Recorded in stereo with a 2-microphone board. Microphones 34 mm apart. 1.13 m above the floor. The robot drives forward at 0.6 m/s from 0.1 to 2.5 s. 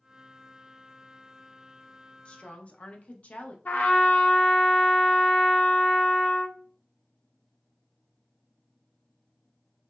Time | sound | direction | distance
2.2 | a woman speaking | 40° left (ahead or behind) | 0.7 m
3.6 | a trumpet | 55° left (ahead or behind) | 0.5 m